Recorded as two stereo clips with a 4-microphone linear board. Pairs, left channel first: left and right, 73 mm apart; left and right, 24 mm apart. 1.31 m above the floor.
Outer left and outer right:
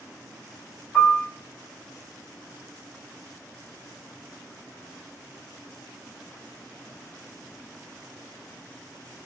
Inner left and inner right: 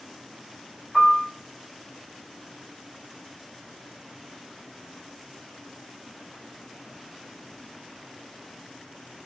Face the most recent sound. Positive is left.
turn(degrees=5)  # may be behind; listen again after turning